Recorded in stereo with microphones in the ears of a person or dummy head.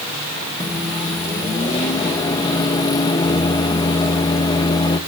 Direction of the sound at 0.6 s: 25° left (ahead or behind).